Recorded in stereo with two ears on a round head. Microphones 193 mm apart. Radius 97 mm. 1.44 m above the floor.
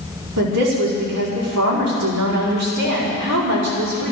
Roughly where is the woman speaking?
Right.